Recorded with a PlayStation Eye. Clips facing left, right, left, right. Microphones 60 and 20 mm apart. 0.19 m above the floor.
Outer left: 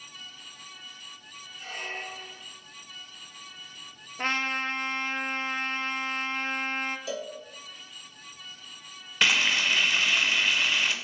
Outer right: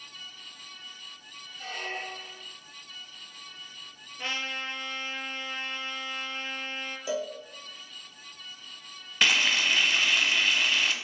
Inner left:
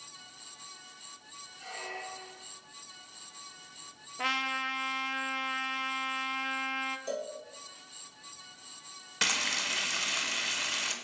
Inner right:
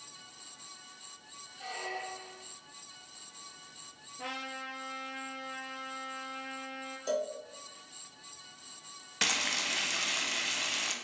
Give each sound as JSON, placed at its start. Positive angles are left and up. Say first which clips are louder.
{"t": 1.6, "sound": "a squeak", "louder": "outer right 1 dB, inner right 2 dB", "side_deg": -80, "distance_m": 2.5}
{"t": 4.2, "sound": "a trumpet", "louder": "outer left 5 dB, inner left 9 dB", "side_deg": 50, "distance_m": 0.6}
{"t": 7.1, "sound": "a cowbell", "louder": "outer right 3 dB, inner right 3 dB", "side_deg": -25, "distance_m": 1.0}
{"t": 9.2, "sound": "frying", "louder": "even, inner left 1 dB", "side_deg": 0, "distance_m": 0.9}